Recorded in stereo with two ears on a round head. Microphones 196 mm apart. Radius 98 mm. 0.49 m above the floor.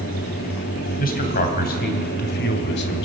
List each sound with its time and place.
1.0 s a man speaking: 40° left (ahead or behind), 3 m; by 3.1 s 55° left (ahead or behind), 1.8 m